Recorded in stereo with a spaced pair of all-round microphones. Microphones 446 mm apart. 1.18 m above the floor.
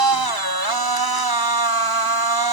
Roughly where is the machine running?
Right.